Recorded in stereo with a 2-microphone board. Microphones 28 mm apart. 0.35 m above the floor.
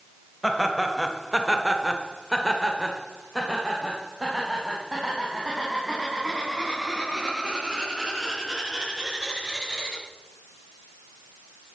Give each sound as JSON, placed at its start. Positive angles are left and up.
{"t": 0.4, "sound": "laughter", "side_deg": 0, "distance_m": 1.7}